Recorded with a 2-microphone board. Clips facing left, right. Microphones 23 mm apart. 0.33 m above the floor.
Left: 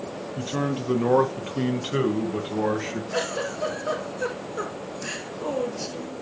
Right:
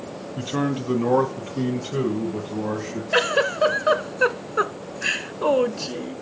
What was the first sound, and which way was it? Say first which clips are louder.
A man speaking: right 3 dB; 20° right (ahead or behind).